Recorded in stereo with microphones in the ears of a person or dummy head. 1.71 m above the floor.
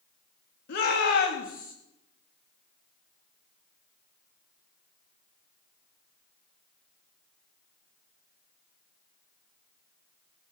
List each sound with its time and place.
0.7 s a shout: 65° left (ahead or behind), 3 m; by 1.7 s 50° left (ahead or behind), 2.5 m